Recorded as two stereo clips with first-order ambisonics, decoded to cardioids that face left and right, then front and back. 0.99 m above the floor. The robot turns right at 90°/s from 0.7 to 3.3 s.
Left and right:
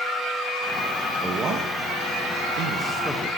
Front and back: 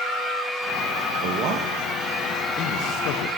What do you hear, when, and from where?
1.2 s a man speaking: 170° right, 0.8 m; by 3.3 s 15° left, 0.8 m